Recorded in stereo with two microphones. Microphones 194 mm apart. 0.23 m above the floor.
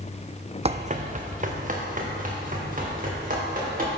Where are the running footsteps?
35° right (ahead or behind), 0.6 m; by 3.9 s 45° right (ahead or behind), 5.5 m.